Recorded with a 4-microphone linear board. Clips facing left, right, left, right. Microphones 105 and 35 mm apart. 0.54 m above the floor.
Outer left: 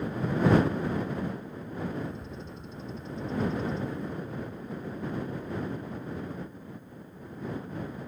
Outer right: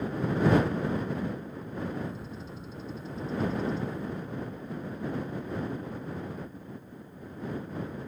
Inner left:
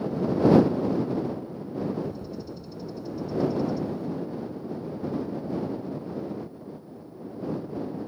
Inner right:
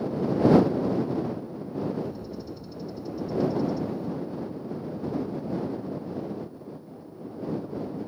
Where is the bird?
5° right (ahead or behind).